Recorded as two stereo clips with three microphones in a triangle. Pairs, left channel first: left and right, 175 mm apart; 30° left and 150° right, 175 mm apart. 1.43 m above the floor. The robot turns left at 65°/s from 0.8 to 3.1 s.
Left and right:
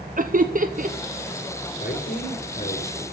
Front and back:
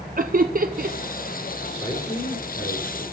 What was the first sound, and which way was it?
Laughter, 120° right.